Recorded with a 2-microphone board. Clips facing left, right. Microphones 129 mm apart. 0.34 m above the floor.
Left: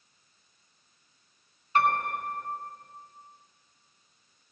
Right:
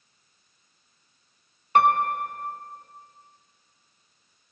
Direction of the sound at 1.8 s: 65° right (ahead or behind).